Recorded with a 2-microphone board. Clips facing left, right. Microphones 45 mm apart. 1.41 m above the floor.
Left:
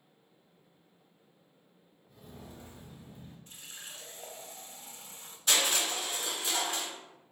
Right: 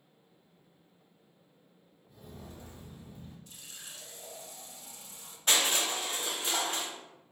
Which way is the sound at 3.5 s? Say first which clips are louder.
Left 2 dB; 35° left (ahead or behind).